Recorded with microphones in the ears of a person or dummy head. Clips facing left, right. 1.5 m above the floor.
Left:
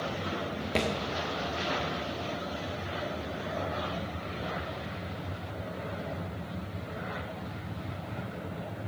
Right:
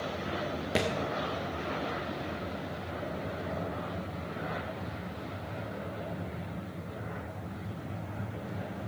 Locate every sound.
0.8 s a thud: 5° right (ahead or behind), 1.3 m